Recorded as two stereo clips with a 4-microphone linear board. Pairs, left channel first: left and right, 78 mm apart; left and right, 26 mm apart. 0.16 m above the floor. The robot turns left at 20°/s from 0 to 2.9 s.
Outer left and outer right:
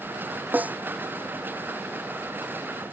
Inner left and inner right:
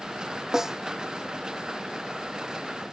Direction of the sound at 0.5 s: 20° right (ahead or behind).